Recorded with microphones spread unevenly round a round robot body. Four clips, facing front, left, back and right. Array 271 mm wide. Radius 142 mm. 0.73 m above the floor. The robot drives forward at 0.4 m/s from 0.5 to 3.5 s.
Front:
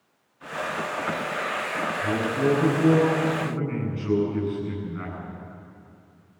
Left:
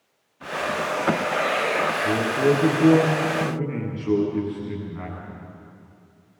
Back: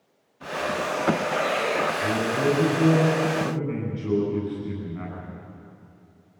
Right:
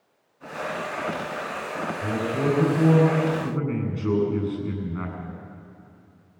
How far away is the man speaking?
About 8.5 m.